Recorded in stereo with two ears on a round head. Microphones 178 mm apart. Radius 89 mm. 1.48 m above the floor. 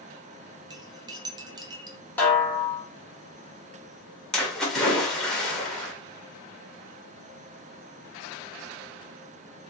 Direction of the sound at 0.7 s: 20° right (ahead or behind).